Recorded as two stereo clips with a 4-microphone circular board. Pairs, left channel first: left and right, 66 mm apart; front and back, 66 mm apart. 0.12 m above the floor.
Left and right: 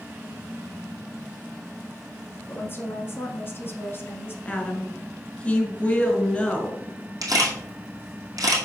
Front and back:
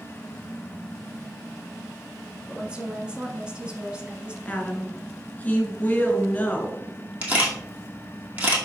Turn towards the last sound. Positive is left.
turn(degrees=-115)